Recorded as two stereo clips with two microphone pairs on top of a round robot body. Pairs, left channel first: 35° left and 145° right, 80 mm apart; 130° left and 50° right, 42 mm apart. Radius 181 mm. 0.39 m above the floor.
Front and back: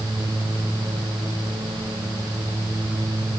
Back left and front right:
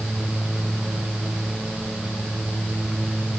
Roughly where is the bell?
No bell in this recording.